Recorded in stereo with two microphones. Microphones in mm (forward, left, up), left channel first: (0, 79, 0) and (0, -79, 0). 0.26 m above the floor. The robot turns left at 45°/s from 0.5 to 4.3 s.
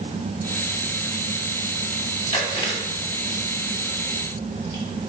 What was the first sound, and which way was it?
Chewing, 45° left (ahead or behind).